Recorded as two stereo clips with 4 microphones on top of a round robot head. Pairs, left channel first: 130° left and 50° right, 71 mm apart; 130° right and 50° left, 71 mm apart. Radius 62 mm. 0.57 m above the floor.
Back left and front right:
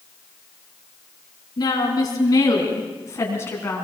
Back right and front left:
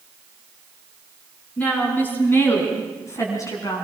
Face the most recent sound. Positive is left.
turn(degrees=-165)